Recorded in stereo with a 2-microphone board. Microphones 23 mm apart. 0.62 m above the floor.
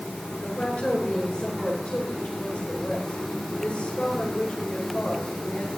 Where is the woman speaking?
75° left (ahead or behind), 9.5 m.